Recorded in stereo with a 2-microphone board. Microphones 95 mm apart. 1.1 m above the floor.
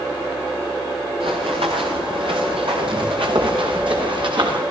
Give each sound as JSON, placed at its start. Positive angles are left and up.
{"t": 1.2, "sound": "running footsteps", "side_deg": -75, "distance_m": 6.0}